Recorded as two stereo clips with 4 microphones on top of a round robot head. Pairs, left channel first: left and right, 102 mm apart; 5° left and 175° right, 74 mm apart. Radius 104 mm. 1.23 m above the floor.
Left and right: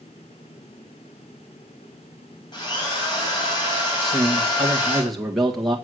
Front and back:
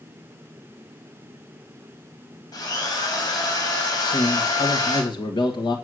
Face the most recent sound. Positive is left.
turn(degrees=0)